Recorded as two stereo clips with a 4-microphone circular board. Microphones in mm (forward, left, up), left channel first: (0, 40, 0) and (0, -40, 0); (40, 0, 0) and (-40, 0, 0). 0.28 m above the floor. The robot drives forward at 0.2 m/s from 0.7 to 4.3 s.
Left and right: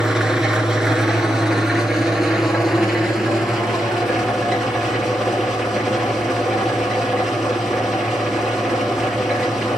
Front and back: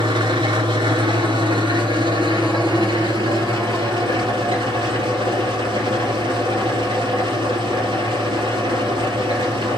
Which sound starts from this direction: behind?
An engine running, at 0.0 s.